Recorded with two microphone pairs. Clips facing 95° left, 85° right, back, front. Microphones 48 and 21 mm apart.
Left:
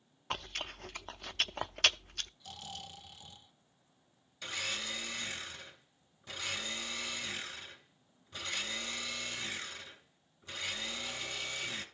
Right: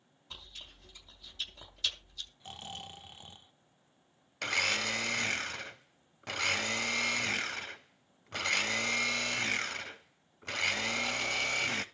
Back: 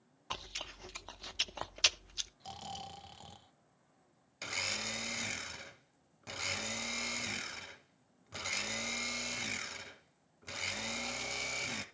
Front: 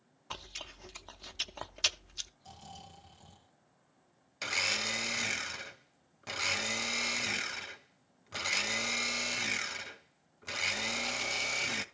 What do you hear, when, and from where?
0.3 s chewing: 100° left, 0.5 m
2.4 s snoring: 140° right, 1.2 m
4.4 s a blender: 65° right, 1.0 m